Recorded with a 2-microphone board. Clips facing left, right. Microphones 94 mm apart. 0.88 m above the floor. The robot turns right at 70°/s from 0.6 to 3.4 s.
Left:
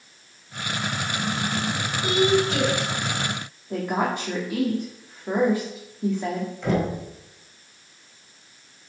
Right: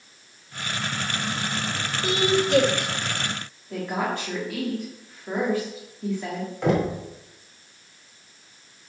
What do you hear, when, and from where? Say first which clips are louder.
2.0 s a woman speaking: left 2 dB; 160° right, 3 m; by 2.9 s 95° right, 3 m
3.7 s a woman speaking: left 2 dB; 20° left (ahead or behind), 1.7 m
6.6 s knocking: right 2 dB; 80° right, 2.5 m